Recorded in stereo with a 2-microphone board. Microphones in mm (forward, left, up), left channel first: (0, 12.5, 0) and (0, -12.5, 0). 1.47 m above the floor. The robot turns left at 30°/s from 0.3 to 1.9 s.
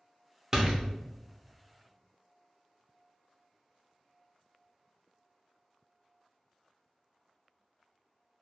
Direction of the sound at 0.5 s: 25° right (ahead or behind).